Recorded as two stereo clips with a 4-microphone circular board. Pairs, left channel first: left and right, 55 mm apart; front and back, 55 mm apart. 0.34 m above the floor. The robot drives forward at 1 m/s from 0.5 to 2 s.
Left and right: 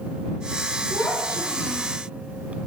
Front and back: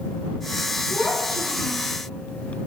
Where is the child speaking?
45° left, 4 m; by 1.9 s 55° left, 3.5 m.